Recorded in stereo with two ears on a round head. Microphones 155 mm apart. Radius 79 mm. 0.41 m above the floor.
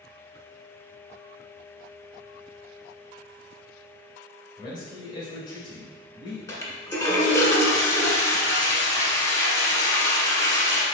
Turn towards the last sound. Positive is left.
turn(degrees=20)  # may be behind; listen again after turning